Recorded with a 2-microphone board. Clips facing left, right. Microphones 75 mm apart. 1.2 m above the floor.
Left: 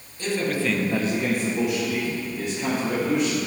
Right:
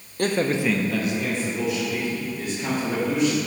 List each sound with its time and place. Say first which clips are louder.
0.2 s a man speaking: right 3 dB; 55° right (ahead or behind), 0.6 m; by 3.4 s 70° left (ahead or behind), 2.5 m